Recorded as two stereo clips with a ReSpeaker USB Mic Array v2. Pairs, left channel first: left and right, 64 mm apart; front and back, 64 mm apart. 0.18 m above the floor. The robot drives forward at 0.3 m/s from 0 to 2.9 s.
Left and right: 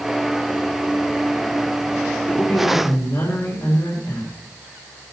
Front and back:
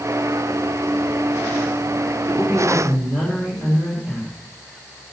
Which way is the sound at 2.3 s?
110° left.